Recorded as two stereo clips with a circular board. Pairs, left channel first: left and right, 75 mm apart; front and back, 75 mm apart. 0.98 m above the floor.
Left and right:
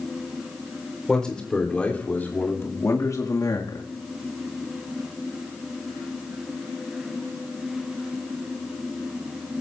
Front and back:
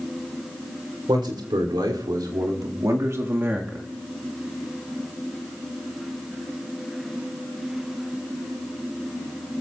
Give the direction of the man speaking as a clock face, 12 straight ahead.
6 o'clock.